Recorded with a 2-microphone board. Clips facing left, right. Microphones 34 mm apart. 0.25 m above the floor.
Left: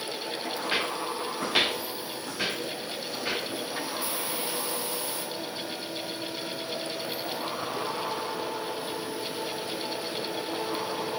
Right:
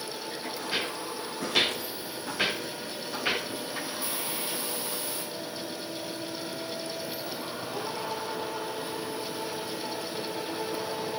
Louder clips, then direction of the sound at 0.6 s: Left 3 dB; 70° left (ahead or behind).